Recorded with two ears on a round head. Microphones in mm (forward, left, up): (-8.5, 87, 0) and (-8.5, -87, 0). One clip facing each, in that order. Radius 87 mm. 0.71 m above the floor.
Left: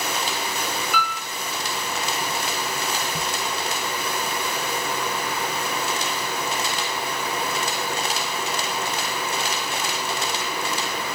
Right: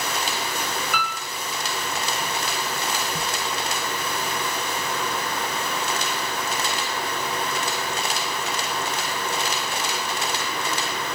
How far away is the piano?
About 3.5 m.